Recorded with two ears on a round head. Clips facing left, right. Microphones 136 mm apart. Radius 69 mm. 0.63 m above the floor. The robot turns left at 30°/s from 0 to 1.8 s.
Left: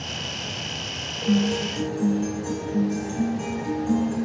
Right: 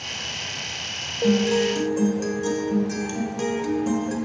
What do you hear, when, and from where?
1.2 s a guitar: 60° right (ahead or behind), 1.4 m; by 4.2 s 75° right (ahead or behind), 1.4 m